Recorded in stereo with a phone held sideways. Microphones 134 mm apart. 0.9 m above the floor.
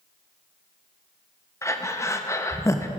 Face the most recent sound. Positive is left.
turn(degrees=25)  # may be behind; listen again after turning